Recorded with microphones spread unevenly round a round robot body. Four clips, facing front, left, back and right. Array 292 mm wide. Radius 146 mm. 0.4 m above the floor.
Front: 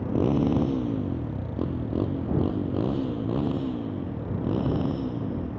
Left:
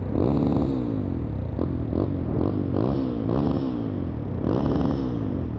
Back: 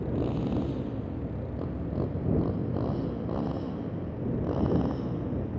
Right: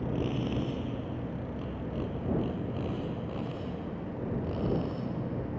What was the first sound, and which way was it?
A motorcycle, 40° left.